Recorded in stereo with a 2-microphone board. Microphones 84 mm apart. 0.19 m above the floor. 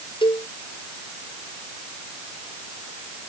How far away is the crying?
No crying in this recording.